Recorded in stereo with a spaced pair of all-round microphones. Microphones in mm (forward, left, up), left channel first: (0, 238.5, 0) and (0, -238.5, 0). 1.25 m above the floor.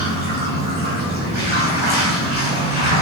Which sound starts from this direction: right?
Running water, at 0.0 s.